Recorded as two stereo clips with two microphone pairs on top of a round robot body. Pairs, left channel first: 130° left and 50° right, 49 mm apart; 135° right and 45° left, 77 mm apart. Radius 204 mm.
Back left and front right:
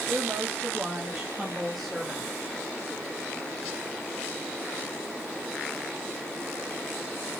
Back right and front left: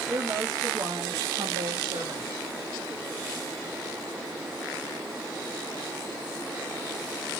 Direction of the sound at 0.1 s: Straight ahead.